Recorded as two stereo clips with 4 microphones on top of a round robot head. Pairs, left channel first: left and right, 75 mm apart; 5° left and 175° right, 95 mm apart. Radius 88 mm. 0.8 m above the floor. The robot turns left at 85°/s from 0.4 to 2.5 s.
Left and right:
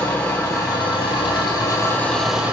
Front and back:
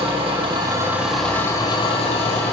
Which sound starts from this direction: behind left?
An engine running, at 0.0 s.